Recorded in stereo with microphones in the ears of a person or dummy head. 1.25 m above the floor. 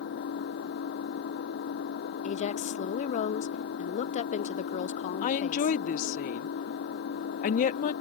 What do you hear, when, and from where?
0.0 s an engine running: 65° left (ahead or behind)
2.2 s a woman speaking: 35° left (ahead or behind)
5.2 s a woman speaking: 50° left (ahead or behind)